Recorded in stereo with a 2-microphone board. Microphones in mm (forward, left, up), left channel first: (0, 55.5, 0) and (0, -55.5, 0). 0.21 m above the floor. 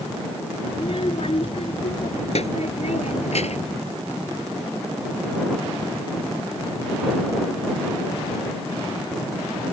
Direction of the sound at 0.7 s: 55° left (ahead or behind).